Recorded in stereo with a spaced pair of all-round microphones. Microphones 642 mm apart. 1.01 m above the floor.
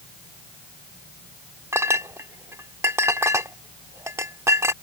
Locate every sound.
1.7 s a clink: 5° right (ahead or behind)